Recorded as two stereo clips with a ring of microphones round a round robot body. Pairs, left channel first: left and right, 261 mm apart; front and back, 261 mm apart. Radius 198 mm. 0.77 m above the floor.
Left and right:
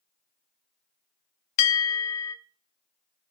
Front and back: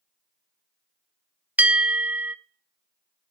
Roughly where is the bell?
Left.